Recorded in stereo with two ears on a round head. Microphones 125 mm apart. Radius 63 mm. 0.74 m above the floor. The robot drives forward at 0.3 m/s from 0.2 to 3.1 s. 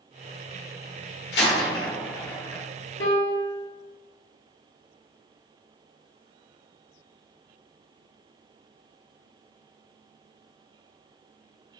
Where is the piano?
55° left (ahead or behind), 1.6 m.